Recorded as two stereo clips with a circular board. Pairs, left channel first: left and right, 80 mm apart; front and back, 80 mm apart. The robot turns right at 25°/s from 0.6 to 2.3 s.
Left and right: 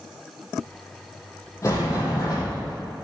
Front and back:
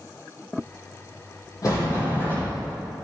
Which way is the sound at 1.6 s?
40° left.